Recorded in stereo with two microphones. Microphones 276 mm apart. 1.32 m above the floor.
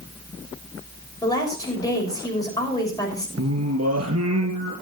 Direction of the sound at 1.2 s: 15° left (ahead or behind).